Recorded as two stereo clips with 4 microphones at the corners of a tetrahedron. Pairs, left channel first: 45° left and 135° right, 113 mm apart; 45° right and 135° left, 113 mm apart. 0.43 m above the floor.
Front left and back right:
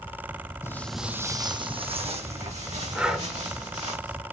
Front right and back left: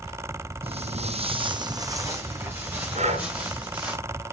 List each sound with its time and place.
0.6 s footsteps: 110° left, 1.0 m; by 4.0 s 145° right, 4 m
3.0 s breathing: 145° left, 2 m